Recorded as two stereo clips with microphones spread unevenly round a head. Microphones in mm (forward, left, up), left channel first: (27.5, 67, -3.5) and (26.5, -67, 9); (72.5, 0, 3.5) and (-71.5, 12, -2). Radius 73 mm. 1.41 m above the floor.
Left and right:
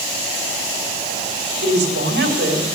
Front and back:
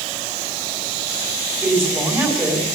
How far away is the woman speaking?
About 3 m.